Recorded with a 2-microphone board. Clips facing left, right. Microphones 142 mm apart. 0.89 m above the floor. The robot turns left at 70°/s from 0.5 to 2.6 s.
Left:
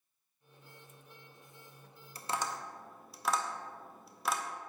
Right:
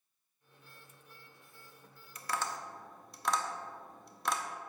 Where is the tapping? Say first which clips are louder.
Left 1 dB; 35° left (ahead or behind), 0.6 m; by 4.4 s 5° left (ahead or behind), 0.6 m.